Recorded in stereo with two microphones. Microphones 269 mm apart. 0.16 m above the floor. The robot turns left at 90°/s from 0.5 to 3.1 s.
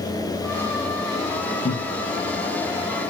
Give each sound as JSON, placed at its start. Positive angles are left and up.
{"t": 1.6, "sound": "laughter", "side_deg": 40, "distance_m": 2.5}